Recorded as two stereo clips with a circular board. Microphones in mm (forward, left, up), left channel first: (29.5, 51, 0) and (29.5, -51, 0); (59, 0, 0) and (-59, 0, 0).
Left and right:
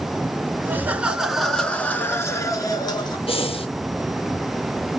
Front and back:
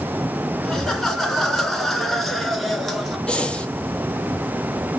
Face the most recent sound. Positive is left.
turn(degrees=80)